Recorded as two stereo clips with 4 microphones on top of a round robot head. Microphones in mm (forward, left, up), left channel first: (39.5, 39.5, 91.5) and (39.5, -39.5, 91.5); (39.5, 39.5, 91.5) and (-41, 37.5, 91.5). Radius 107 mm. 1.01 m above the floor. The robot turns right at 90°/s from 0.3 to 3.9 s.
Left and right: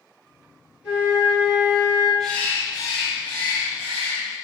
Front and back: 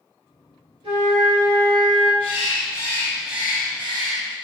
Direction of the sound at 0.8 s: 170° right.